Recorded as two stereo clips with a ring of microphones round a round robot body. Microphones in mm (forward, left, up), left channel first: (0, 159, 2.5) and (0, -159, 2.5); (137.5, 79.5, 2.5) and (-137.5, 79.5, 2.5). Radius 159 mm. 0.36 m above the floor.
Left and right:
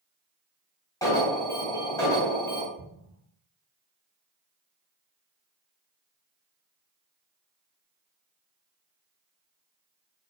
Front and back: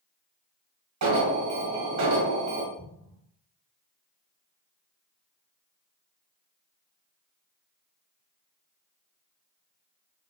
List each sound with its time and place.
1.0 s an alarm: 170° left, 1.8 m
2.8 s an explosion: 145° left, 3 m